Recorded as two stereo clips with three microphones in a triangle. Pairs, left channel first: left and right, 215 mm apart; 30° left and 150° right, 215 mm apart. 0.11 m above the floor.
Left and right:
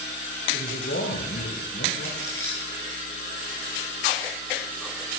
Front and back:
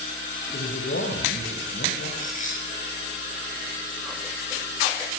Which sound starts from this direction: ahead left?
A man speaking, at 0.5 s.